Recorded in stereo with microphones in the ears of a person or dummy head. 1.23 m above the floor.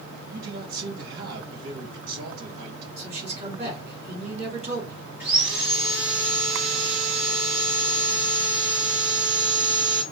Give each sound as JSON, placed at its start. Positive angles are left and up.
{"t": 0.3, "sound": "a man speaking", "side_deg": -60, "distance_m": 1.4}
{"t": 3.0, "sound": "a man speaking", "side_deg": -35, "distance_m": 2.5}
{"t": 5.2, "sound": "sawing", "side_deg": -10, "distance_m": 1.8}